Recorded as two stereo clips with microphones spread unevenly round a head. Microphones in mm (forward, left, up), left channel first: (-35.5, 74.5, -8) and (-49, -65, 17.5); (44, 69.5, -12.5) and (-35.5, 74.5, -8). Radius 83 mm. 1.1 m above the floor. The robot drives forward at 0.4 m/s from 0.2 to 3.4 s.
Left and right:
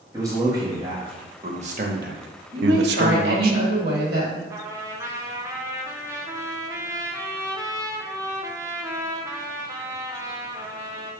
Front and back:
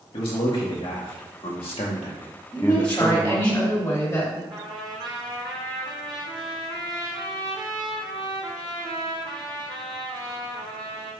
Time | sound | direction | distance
0.1 | a man speaking | 25° right | 1.1 m
2.5 | a woman speaking | 75° right | 1.4 m
4.5 | a trumpet | 170° right | 0.8 m